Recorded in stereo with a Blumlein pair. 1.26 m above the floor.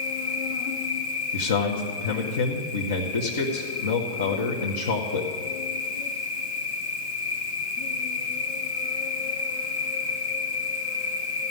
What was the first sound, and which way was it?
An insect, 55° left.